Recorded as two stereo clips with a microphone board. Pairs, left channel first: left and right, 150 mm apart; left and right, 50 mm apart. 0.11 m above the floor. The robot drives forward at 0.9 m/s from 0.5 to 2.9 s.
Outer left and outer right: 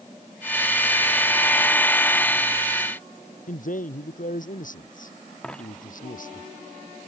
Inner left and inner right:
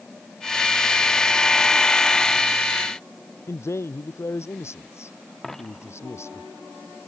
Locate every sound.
3.5 s a man speaking: 70° left (ahead or behind)
5.4 s a dropped coin: 5° left (ahead or behind)